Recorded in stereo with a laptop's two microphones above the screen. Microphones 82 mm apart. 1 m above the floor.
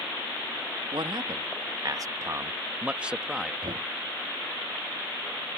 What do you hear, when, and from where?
0.9 s a man speaking: 70° right (ahead or behind); by 3.5 s centre (ahead or behind)
3.6 s knocking: 80° right